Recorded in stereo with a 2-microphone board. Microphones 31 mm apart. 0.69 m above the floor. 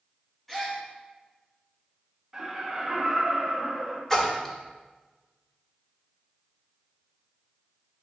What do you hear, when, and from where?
0.5 s a gasp: centre (ahead or behind), 1.2 m
2.3 s laughter: 20° right (ahead or behind), 1.4 m
4.1 s a splash: 15° left (ahead or behind), 0.8 m